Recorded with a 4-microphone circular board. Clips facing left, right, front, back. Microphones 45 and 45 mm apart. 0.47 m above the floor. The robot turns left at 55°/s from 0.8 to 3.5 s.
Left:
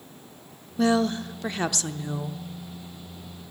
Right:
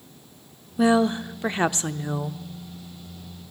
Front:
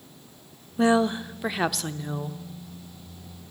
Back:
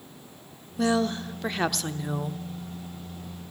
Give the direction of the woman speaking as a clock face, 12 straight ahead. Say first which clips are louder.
Right 3 dB, front 4 dB; 1 o'clock.